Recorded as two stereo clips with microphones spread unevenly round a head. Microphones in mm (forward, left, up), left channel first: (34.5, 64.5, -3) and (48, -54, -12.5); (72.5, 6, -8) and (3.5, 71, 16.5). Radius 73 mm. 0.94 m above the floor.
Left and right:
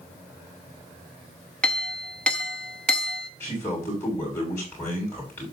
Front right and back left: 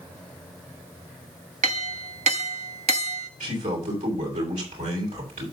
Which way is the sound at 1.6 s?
Straight behind.